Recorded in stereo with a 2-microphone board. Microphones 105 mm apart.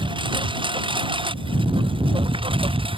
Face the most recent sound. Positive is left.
turn(degrees=-55)  # may be behind; listen again after turning